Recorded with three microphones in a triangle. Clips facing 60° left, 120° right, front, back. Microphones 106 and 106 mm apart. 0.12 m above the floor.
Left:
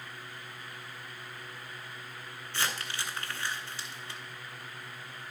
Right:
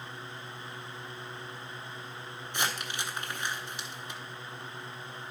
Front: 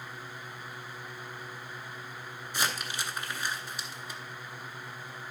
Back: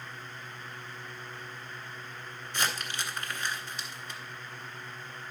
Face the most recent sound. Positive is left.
turn(degrees=-70)